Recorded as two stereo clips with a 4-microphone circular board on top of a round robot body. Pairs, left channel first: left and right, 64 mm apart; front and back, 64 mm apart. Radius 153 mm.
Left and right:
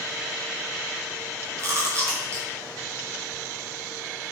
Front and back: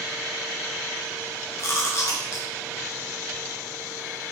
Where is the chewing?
45° right, 4.5 m.